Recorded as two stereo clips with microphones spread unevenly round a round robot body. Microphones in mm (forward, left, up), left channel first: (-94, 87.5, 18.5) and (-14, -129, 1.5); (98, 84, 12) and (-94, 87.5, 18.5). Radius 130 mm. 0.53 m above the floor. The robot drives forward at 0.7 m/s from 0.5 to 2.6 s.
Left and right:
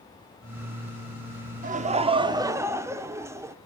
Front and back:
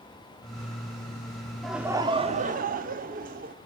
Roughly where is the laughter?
Right.